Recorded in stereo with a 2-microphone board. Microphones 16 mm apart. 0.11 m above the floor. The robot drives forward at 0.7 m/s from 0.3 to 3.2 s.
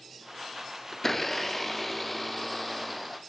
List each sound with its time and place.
0.9 s a blender: 25° left (ahead or behind), 0.6 m; by 3.2 s 5° left (ahead or behind), 2 m